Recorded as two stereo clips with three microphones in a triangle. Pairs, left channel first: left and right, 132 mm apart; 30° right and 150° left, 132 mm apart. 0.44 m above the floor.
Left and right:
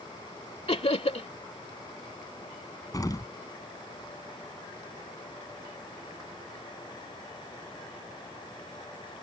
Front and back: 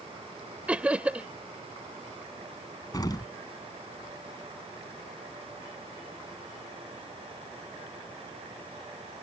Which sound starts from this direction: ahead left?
An explosion, at 2.9 s.